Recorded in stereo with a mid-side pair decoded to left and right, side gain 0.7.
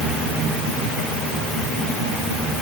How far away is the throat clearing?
No throat clearing in this recording.